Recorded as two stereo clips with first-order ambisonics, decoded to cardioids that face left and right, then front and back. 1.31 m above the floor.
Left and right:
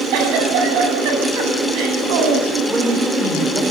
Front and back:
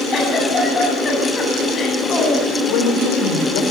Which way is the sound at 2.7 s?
10° right.